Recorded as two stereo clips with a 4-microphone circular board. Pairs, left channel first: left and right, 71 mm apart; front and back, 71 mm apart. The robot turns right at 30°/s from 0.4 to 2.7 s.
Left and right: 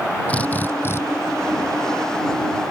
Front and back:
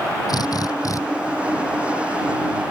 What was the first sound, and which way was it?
A drill, 20° left.